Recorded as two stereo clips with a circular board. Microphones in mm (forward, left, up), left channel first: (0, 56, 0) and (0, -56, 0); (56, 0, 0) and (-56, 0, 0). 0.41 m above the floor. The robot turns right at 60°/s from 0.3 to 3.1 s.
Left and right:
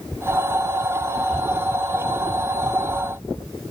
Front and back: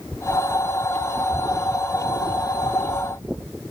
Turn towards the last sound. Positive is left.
No sound to turn to.